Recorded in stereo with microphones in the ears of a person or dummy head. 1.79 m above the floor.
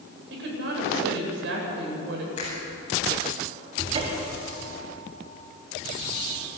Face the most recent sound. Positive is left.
turn(degrees=-35)  # may be behind; listen again after turning